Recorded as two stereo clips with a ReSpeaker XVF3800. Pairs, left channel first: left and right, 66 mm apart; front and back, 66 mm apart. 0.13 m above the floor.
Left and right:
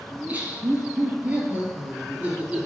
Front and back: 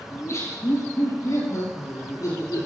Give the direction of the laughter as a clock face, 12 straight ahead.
1 o'clock.